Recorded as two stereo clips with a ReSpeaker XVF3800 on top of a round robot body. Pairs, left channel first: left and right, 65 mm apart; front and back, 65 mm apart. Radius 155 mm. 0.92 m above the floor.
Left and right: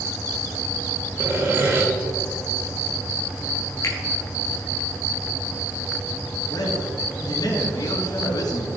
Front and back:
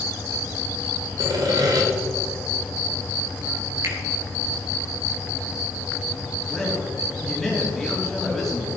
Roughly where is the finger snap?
Behind left.